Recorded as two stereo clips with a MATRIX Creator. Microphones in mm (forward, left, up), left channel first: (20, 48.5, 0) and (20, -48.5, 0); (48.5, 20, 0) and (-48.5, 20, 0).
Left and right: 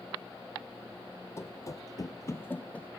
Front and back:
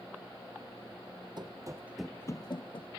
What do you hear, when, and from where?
1.4 s running footsteps: 150° left, 0.9 m; by 2.9 s 10° left, 1.0 m